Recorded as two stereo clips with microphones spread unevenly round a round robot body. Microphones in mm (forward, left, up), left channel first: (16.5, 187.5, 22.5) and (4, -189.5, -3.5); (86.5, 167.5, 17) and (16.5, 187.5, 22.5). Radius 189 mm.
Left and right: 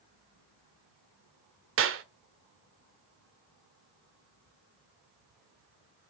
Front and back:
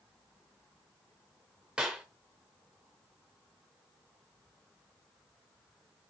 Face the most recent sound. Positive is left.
turn(degrees=-115)